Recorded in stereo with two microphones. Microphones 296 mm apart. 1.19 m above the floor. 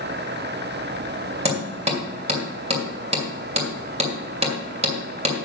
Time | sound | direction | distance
1.4 | hammering | 20° right (ahead or behind) | 2 m